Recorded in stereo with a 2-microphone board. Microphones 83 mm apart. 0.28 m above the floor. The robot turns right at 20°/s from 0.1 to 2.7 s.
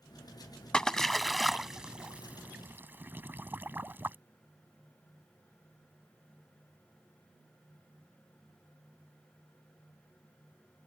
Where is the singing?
No singing in this recording.